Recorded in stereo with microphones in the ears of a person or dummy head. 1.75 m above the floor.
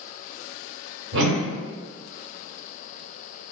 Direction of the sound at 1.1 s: 70° right (ahead or behind).